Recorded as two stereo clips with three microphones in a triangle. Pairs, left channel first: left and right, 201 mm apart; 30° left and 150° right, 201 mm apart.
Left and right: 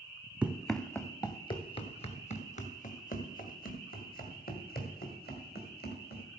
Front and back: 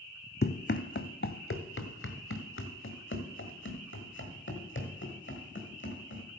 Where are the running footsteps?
5° right, 0.7 m; by 6.2 s 50° left, 3.5 m.